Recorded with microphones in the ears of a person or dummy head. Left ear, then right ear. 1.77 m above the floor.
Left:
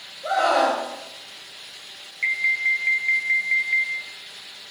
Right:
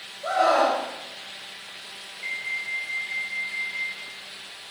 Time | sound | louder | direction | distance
0.2 | a scream | left 1 dB | 80° right | 3.5 m
2.2 | an alarm | left 9 dB | 60° left (ahead or behind) | 0.5 m